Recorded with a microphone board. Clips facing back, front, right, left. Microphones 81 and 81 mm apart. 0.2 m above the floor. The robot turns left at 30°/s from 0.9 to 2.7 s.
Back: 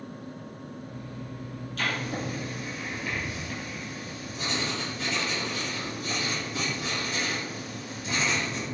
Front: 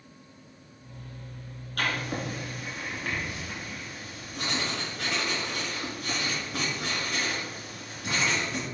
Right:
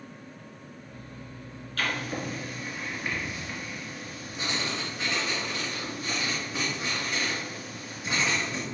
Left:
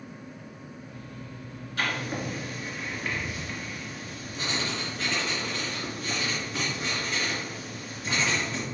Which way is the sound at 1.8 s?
15° left.